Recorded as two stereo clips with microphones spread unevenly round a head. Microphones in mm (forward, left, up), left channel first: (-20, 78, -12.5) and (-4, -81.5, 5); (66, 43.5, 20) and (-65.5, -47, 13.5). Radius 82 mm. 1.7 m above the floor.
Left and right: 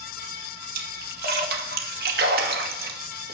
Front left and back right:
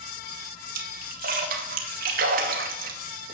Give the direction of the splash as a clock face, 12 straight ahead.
4 o'clock.